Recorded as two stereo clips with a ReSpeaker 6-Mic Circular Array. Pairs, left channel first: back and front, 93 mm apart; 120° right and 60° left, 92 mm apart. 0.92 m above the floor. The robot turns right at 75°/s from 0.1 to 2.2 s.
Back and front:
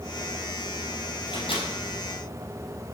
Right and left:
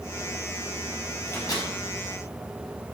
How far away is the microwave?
About 4.5 m.